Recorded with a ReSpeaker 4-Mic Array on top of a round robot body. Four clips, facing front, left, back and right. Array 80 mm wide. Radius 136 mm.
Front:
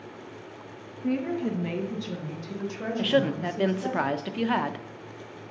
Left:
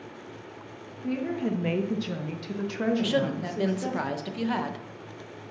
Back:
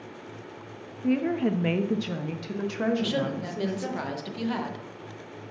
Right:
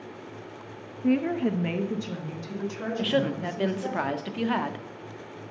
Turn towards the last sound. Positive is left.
turn(degrees=-25)